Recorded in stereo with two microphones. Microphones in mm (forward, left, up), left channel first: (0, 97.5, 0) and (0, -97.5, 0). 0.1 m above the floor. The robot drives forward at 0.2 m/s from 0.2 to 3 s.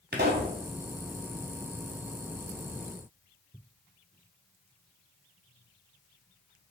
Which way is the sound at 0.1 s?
60° right (ahead or behind).